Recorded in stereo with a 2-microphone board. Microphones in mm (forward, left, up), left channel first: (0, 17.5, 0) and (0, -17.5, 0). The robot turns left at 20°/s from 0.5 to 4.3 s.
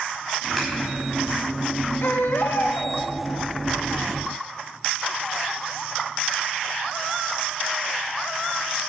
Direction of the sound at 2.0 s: 80° left.